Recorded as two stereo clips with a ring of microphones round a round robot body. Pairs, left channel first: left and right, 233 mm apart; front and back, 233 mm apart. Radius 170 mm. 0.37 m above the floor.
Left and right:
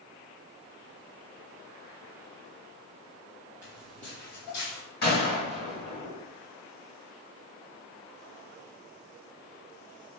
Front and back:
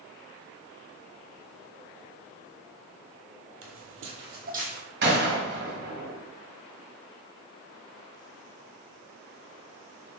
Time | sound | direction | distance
3.6 | footsteps | 175° left | 0.8 m
5.0 | a gunshot | 135° left | 1.3 m